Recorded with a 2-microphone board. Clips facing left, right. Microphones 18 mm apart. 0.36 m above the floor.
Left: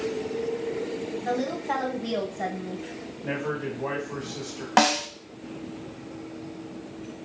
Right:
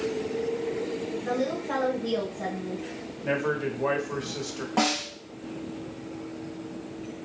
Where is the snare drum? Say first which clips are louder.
Left 5 dB; 75° left (ahead or behind), 0.8 m.